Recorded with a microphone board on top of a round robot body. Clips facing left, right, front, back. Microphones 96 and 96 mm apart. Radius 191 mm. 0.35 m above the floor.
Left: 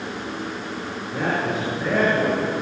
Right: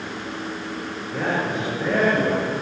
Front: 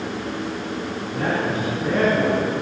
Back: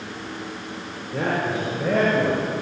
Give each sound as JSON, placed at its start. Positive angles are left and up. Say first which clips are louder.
{"t": 1.1, "sound": "a man speaking", "louder": "even, even", "azimuth_deg": 175, "distance_m": 8.0}